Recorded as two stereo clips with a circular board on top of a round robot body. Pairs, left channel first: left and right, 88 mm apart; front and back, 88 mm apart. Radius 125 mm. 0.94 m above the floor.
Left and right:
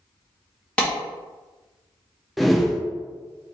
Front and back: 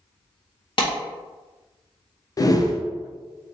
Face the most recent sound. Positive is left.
turn(degrees=0)